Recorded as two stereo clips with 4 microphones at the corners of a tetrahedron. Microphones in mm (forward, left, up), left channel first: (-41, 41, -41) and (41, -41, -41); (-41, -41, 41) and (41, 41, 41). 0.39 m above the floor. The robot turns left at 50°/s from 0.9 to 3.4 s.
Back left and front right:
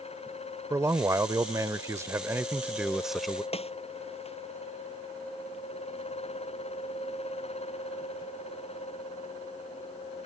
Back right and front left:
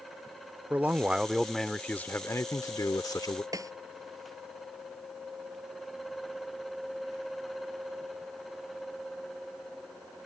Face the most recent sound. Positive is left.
turn(degrees=105)